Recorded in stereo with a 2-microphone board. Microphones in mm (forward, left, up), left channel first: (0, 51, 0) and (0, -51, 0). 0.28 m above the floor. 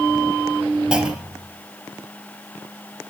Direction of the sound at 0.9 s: 10° right (ahead or behind).